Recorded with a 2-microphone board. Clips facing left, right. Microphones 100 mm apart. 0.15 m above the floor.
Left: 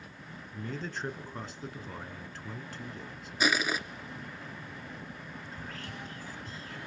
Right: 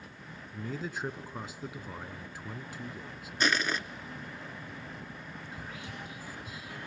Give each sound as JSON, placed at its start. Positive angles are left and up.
{"t": 0.5, "sound": "a man speaking", "side_deg": -5, "distance_m": 1.4}
{"t": 3.4, "sound": "crushing", "side_deg": 5, "distance_m": 0.7}
{"t": 5.5, "sound": "whispering", "side_deg": -10, "distance_m": 1.4}